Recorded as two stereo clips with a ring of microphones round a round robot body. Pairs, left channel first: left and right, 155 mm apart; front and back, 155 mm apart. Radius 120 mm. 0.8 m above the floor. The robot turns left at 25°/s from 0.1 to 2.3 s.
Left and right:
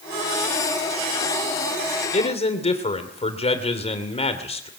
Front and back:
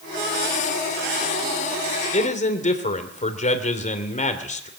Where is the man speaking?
45° left, 3 m; by 4.7 s 40° left, 3 m.